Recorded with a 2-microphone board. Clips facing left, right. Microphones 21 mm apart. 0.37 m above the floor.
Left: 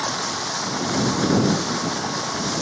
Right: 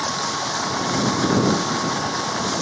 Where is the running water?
10° right (ahead or behind).